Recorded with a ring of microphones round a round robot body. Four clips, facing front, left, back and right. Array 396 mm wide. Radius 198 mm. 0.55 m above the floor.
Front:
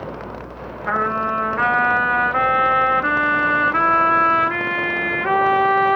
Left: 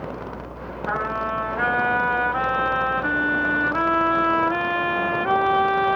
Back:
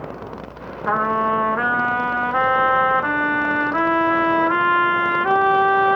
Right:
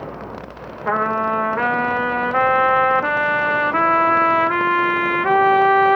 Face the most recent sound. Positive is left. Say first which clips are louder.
# right 6 dB, back 2 dB
turn(degrees=-110)